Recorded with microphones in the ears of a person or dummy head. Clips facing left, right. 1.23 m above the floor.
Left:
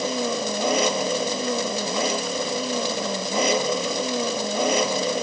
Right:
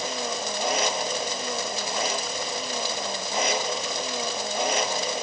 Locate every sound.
0.0 s an engine running: 85° left